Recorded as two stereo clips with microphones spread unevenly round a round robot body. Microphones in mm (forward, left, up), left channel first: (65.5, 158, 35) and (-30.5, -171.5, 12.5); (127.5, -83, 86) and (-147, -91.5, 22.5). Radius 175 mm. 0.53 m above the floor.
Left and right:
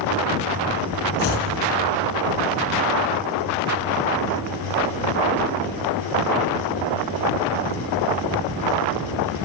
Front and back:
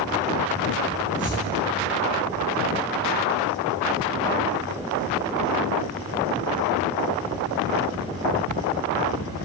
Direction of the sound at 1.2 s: 85° left.